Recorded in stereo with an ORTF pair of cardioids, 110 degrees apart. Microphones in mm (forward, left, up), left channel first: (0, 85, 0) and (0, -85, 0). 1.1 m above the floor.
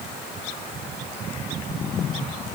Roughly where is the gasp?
I don't hear a gasp.